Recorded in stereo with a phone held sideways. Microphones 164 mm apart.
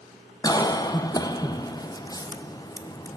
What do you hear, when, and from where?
0.4 s a cough: 25° left (ahead or behind), 0.7 m